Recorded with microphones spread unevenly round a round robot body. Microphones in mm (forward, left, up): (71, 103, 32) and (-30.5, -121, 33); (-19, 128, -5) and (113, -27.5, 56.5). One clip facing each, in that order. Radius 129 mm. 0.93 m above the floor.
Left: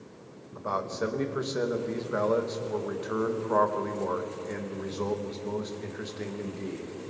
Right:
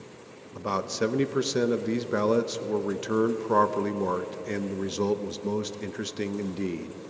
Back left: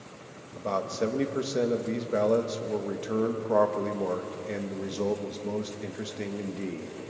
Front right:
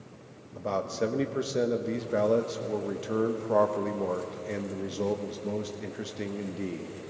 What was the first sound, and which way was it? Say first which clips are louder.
A man speaking: right 3 dB, even; 150° right.